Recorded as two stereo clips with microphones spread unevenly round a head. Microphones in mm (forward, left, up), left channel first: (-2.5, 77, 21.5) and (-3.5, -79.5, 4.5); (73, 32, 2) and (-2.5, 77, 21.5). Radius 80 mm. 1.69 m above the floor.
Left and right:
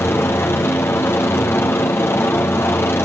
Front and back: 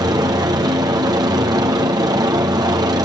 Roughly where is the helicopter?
Behind.